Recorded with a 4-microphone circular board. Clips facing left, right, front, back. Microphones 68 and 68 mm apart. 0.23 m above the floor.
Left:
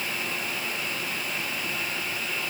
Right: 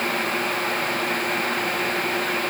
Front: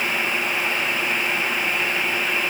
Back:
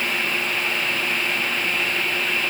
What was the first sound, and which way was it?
Only background noise.